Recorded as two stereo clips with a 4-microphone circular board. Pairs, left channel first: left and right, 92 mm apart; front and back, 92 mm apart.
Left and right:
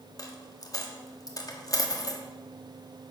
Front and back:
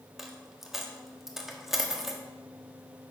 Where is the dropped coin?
95° left, 1.3 m.